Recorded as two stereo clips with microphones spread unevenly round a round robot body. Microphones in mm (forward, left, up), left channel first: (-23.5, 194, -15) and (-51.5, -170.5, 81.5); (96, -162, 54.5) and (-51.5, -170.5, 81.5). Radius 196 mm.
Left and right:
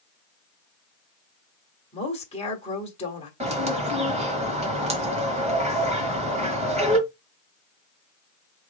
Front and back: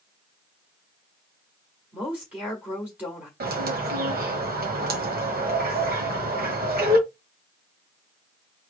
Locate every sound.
1.9 s a woman speaking: 90° left, 1.4 m
3.4 s a bird: 175° right, 1.5 m